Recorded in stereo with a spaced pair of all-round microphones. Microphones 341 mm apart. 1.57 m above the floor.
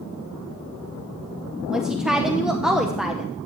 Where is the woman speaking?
Centre (ahead or behind), 0.8 m.